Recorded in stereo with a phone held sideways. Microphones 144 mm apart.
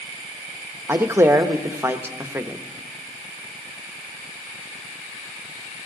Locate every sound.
0.9 s a man speaking: 15° right (ahead or behind), 0.8 m